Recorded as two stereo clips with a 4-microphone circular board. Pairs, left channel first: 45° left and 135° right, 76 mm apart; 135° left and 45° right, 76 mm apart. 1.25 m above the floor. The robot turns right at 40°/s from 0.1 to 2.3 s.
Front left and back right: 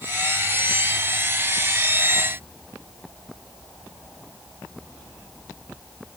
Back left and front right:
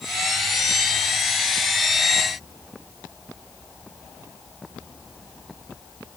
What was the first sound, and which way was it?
Only background noise.